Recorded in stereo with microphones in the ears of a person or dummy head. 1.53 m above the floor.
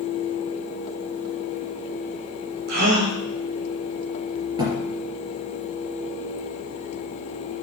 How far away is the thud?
About 4.5 m.